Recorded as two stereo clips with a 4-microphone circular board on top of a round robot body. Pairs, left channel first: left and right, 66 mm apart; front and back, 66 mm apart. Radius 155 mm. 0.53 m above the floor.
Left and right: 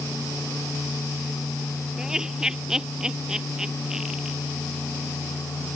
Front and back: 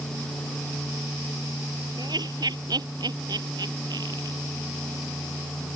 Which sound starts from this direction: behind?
Laughter, at 2.0 s.